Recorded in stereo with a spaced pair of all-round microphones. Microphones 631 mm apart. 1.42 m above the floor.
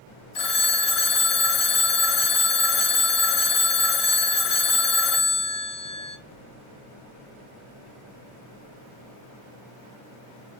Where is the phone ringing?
55° left (ahead or behind), 0.6 m.